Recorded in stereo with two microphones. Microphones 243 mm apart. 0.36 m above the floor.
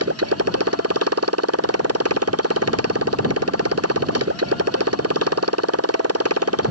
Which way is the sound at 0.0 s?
80° right.